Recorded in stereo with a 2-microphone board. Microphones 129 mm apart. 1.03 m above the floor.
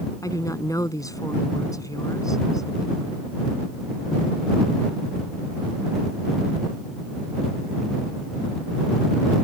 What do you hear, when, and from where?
0.2 s a woman speaking: 25° left (ahead or behind)